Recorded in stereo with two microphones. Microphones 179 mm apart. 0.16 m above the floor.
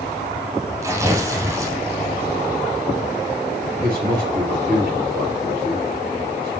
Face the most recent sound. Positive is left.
turn(degrees=-55)  # may be behind; listen again after turning